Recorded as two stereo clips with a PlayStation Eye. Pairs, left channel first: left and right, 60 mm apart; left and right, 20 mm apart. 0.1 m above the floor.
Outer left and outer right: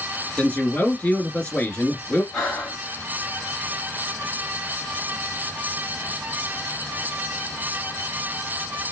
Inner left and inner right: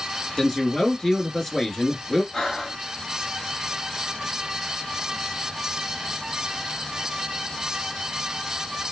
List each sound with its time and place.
0.4 s a man speaking: 25° left (ahead or behind), 1.3 m
2.3 s breathing: 25° left (ahead or behind), 3 m